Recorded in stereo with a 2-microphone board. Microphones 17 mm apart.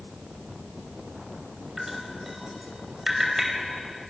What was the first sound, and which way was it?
Dripping, 15° right (ahead or behind).